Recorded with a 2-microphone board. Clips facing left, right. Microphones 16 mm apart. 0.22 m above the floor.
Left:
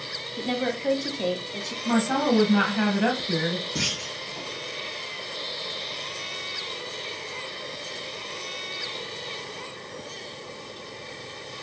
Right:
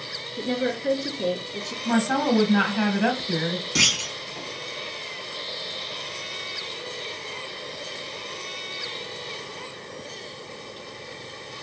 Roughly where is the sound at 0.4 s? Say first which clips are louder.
Right 1 dB; left.